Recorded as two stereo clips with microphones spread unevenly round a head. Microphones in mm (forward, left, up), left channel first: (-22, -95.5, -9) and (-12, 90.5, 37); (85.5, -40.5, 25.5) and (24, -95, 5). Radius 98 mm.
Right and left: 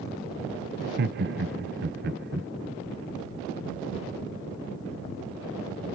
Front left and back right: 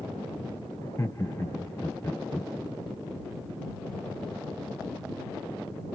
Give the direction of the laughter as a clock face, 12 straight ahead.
8 o'clock.